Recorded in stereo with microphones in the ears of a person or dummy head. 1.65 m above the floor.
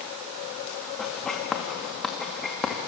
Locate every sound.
1.0 s writing: centre (ahead or behind), 2 m